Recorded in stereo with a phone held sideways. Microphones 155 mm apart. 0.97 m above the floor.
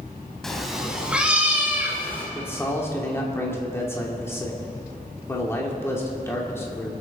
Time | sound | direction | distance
0.4 | a cat meowing | centre (ahead or behind) | 1.8 m
2.4 | a man speaking | 15° left (ahead or behind) | 2 m